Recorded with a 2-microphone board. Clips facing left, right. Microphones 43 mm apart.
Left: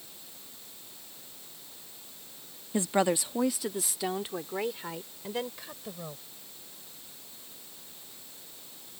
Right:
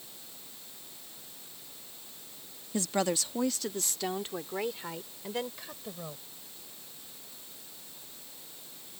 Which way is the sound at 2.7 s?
25° left (ahead or behind).